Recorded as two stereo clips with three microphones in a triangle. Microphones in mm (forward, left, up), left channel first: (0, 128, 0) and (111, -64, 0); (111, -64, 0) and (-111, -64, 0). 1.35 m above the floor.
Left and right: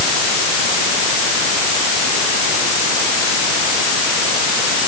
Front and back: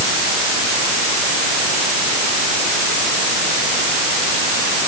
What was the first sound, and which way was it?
Only background noise.